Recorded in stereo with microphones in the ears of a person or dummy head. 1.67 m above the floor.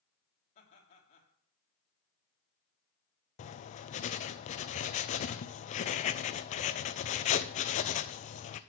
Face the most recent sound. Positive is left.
turn(degrees=40)  # may be behind; listen again after turning